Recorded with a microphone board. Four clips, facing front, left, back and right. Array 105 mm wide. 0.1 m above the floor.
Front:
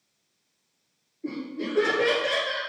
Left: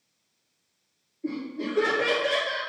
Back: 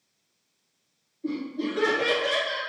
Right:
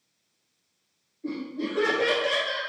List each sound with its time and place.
1.2 s laughter: 35° left, 1.8 m; by 2.6 s 25° right, 2 m